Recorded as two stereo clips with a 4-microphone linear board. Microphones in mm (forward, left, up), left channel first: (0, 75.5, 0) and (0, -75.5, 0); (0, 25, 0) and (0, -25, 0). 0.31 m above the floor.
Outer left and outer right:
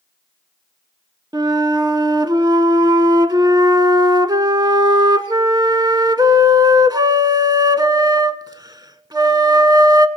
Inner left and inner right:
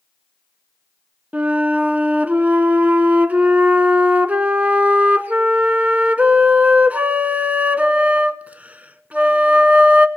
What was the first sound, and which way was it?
A flute, 30° right (ahead or behind).